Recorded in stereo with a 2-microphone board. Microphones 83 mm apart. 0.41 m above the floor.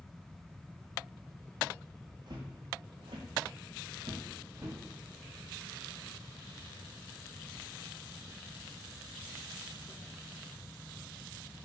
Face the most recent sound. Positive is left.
turn(degrees=-35)  # may be behind; listen again after turning